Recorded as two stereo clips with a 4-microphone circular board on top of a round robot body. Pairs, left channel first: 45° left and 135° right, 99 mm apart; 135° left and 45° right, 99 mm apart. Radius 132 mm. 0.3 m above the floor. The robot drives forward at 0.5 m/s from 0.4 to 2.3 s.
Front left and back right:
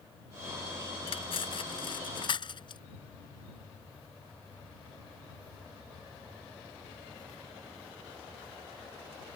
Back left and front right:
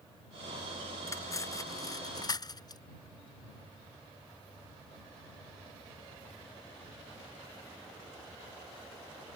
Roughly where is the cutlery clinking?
Left.